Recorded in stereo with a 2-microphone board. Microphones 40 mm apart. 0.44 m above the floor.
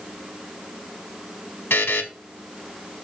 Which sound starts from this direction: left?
A buzzer, at 1.7 s.